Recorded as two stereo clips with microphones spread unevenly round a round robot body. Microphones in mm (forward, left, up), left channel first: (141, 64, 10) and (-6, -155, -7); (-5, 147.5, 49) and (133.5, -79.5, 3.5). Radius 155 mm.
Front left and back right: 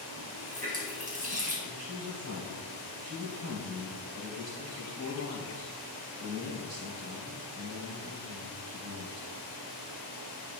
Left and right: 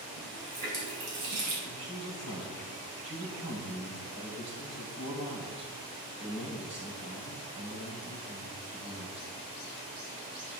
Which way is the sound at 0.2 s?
65° right.